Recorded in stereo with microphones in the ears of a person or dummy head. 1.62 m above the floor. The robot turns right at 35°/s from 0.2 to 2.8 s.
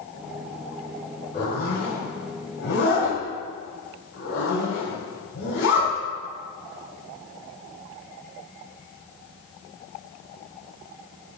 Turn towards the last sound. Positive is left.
turn(degrees=70)  # may be behind; listen again after turning